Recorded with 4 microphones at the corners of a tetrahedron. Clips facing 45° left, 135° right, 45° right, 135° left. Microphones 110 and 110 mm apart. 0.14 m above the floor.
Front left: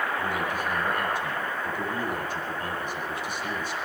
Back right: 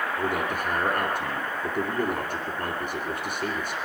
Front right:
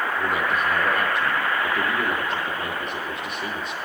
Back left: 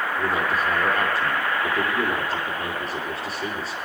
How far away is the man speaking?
About 2.5 m.